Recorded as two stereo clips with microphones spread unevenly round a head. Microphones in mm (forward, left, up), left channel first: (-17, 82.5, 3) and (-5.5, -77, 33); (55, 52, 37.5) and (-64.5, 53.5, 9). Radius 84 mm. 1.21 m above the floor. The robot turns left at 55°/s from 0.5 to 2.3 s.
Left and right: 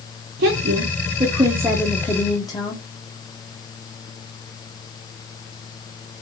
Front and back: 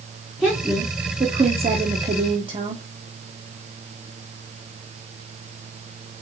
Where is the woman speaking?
105° right, 0.9 m; by 2.8 s 155° left, 0.9 m.